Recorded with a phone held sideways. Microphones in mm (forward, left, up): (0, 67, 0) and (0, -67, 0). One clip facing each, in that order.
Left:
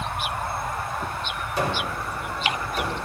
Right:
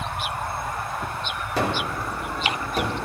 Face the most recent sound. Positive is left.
turn(degrees=-80)